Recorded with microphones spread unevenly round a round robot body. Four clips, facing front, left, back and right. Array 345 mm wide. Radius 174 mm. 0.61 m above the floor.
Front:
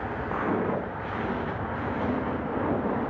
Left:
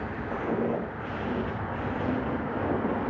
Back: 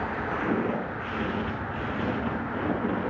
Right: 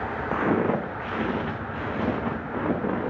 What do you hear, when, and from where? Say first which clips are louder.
0.3 s footsteps: right 5 dB, front 1 dB; 95° right, 2.5 m; by 3.1 s 105° right, 3.5 m